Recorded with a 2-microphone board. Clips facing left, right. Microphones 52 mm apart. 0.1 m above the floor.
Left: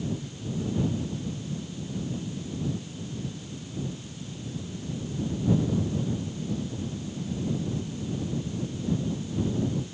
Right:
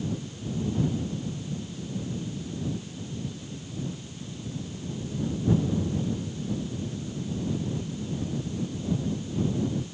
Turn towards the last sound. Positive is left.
No sound to turn to.